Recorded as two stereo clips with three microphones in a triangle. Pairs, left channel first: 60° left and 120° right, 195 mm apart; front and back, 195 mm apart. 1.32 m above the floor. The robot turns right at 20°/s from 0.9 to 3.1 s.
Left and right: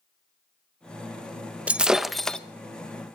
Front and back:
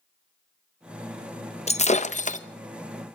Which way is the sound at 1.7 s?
40° right.